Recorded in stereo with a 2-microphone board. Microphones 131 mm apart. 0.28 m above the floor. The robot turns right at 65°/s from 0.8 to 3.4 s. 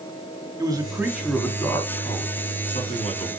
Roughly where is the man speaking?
Ahead right.